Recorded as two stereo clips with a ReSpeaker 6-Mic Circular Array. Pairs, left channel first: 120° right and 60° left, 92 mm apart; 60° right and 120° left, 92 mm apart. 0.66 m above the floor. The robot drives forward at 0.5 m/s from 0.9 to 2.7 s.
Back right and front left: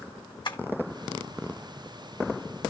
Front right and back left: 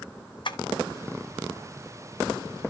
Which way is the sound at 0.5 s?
90° right.